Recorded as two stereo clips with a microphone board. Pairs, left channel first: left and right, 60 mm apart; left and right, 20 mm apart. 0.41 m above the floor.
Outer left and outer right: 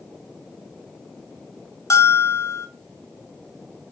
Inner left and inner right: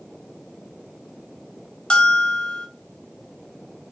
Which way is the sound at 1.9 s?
55° left (ahead or behind).